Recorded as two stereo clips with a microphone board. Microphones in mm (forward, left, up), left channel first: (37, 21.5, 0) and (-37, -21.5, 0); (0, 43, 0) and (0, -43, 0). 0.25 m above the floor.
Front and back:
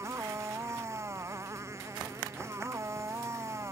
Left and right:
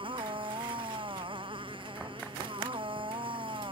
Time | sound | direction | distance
0.0 | a motorcycle | 95° right | ?